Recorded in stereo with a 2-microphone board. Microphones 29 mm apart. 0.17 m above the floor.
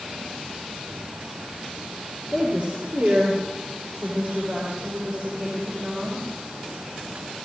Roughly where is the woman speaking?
Right.